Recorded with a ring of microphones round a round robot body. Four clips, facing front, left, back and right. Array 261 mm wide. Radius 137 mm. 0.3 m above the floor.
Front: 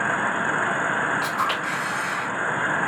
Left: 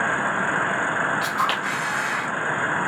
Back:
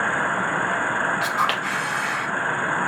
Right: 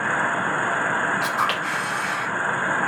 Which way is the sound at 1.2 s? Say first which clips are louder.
Even, back 2 dB; 170° left.